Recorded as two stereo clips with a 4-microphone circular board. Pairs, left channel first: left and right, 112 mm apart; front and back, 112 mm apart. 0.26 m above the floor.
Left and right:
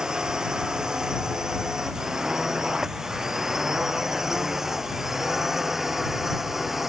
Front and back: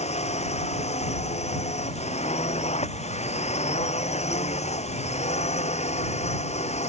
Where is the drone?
5° right.